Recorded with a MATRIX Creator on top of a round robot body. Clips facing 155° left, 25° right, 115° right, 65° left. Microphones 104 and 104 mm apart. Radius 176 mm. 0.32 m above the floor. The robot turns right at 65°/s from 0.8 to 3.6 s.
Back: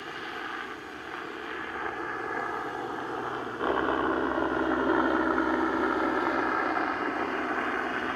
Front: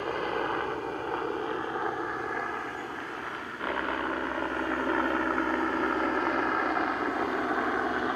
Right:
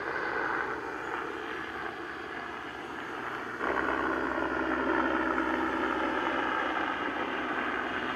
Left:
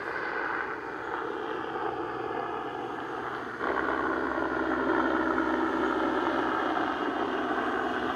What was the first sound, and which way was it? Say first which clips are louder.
A helicopter: front 8 dB, even; 20° right.